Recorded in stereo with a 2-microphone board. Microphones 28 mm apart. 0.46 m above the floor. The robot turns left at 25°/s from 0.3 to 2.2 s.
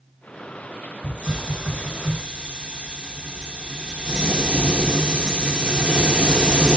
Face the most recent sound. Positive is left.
turn(degrees=-30)  # may be behind; listen again after turning